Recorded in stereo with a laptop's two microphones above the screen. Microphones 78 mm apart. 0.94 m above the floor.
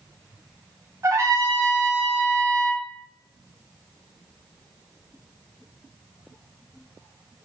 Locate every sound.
1.0 s a trumpet: 35° right (ahead or behind), 0.8 m